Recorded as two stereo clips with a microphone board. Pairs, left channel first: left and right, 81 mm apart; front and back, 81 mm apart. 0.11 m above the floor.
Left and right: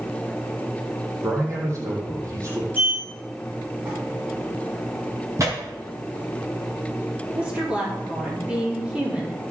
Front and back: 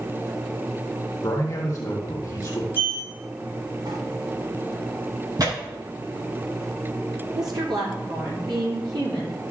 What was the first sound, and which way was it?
A man speaking, 45° right.